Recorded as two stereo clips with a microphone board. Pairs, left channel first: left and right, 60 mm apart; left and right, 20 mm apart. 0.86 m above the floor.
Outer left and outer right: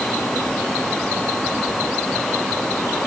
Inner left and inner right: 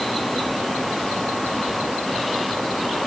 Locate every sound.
Only background noise.